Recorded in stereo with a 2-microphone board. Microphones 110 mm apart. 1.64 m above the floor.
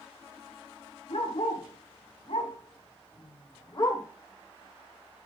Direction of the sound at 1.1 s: 70° left (ahead or behind).